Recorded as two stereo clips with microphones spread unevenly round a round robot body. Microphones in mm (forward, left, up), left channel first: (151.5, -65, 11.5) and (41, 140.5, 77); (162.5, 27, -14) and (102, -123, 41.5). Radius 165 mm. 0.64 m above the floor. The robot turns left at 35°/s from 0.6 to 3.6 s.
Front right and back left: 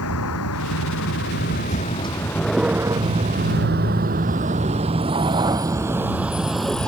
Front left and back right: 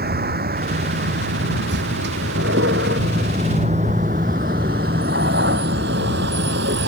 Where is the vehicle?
100° right; by 6.9 s 150° right.